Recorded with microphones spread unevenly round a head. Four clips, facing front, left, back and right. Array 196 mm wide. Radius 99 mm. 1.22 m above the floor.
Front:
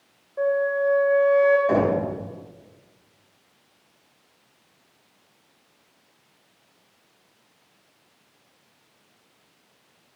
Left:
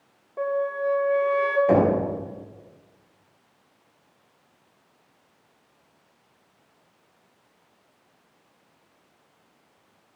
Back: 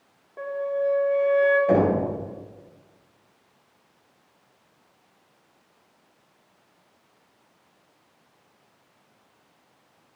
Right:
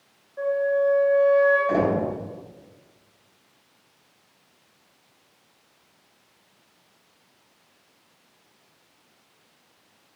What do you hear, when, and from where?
0.4 s a flute: 125° left, 1.8 m
1.7 s knocking: 125° left, 5 m